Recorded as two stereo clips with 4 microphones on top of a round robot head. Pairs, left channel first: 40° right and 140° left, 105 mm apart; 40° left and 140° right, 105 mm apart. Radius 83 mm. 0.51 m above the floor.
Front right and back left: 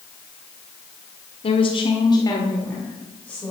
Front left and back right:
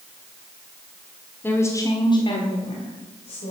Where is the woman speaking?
30° right, 1.8 m; by 3.5 s 40° left, 2.5 m.